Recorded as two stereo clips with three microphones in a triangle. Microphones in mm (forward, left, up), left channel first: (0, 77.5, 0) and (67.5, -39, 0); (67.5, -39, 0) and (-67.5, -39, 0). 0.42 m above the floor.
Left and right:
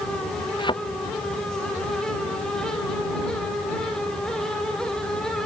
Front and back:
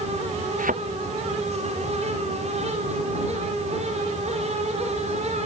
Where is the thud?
175° left.